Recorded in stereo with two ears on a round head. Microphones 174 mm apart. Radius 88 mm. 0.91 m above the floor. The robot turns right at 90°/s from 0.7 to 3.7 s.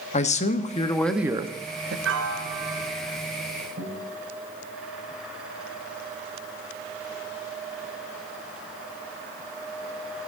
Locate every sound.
0.1 s a man speaking: 140° left, 1.1 m; by 1.9 s 105° right, 1.1 m
2.0 s a piano: 80° right, 2.5 m; by 3.2 s 20° left, 2.5 m
3.8 s a guitar: 60° right (ahead or behind), 5 m